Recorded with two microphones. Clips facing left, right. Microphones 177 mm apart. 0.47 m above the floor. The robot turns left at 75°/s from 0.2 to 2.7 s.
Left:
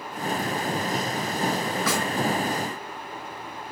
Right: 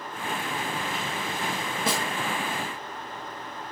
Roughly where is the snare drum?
Right.